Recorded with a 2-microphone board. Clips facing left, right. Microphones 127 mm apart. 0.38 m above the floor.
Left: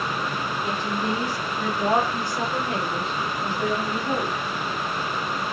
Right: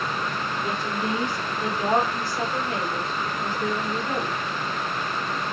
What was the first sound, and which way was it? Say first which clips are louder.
A woman speaking: left 1 dB; 40° right (ahead or behind).